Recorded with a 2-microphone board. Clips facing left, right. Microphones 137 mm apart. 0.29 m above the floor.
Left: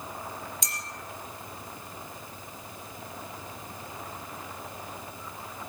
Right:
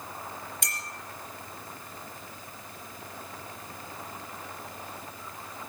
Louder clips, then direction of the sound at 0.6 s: Even; 60° right (ahead or behind).